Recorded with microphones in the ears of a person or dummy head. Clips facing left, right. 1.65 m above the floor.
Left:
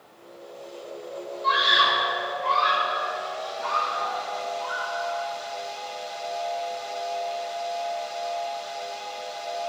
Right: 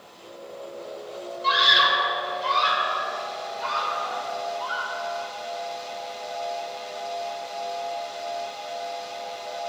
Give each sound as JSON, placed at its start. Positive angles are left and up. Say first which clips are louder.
{"t": 1.4, "sound": "a scream", "louder": "right 1 dB", "side_deg": -35, "distance_m": 8.5}